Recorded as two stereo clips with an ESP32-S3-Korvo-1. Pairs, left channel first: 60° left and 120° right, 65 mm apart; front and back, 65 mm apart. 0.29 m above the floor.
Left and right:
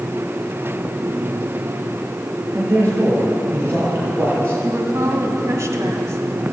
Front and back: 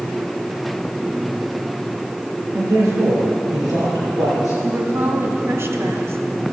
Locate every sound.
2.5 s a man speaking: 165° right, 5.5 m; by 4.5 s 175° right, 8 m
4.6 s a woman speaking: 145° right, 1.8 m